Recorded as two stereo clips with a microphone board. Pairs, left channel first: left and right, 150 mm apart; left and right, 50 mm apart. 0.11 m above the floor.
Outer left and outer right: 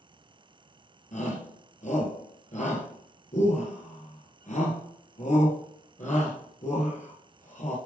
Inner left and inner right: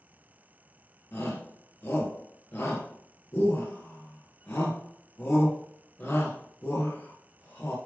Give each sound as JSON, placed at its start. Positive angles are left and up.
{"t": 1.1, "sound": "a shout", "side_deg": 50, "distance_m": 2.0}